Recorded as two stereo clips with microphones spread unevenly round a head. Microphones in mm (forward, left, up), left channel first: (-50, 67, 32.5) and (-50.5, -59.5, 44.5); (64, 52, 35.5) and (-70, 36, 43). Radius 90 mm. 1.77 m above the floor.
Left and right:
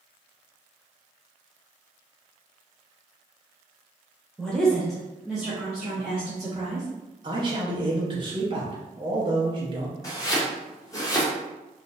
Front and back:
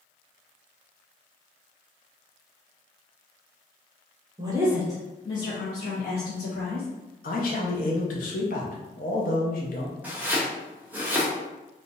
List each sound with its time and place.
4.4 s a woman speaking: straight behind, 0.8 m; by 6.9 s 10° right, 1.6 m
7.2 s a man speaking: 30° right, 0.7 m
10.0 s chopping: 130° left, 0.7 m